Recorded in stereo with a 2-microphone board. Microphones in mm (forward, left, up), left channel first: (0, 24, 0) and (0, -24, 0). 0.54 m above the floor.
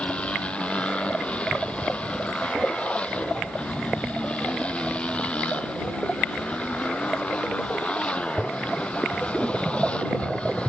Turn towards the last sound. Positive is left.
turn(degrees=25)  # may be behind; listen again after turning